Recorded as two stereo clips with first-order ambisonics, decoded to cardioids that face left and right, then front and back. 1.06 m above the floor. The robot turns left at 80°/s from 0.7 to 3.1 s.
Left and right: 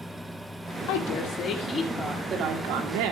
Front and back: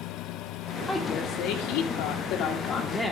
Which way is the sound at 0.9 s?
80° left.